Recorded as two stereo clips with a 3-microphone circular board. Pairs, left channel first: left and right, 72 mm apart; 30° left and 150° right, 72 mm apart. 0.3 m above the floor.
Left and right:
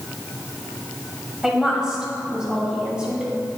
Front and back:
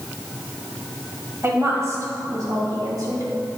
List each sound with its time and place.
1.4 s a woman speaking: 165° right, 1.7 m